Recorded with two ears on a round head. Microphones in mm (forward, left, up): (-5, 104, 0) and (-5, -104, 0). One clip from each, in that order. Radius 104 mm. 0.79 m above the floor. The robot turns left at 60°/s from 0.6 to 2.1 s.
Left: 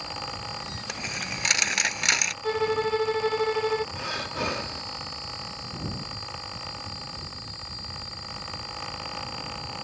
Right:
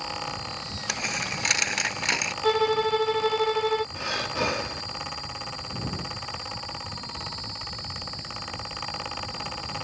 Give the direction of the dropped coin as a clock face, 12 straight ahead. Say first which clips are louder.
Right 4 dB; 5 o'clock.